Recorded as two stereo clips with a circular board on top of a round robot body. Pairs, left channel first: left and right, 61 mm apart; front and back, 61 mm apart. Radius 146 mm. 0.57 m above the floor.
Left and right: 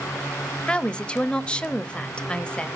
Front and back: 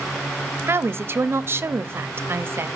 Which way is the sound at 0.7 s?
155° left.